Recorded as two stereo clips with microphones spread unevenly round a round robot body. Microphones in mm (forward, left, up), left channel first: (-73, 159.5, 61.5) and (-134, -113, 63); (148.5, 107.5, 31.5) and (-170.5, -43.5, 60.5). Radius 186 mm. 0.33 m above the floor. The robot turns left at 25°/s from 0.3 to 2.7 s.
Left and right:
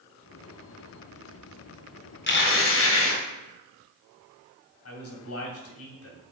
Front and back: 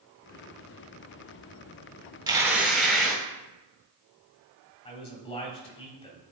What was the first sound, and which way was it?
Tearing paper, 125° left.